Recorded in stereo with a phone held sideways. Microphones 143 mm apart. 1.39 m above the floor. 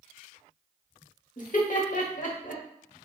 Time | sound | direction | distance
1.4 | laughter | 60° left (ahead or behind) | 0.9 m